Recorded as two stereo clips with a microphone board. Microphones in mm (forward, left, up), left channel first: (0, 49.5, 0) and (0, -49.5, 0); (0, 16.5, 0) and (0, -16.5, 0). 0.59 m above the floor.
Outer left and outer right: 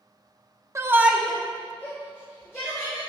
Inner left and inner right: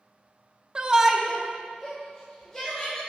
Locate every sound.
0.8 s a shout: 30° right (ahead or behind), 0.7 m; by 3.0 s 25° left (ahead or behind), 3 m